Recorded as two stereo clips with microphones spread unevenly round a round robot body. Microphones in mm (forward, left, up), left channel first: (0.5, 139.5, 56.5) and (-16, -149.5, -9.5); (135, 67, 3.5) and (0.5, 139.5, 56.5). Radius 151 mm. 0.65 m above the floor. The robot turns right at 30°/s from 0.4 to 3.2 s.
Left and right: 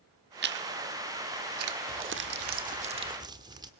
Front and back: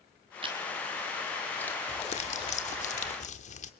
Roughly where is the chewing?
Behind right.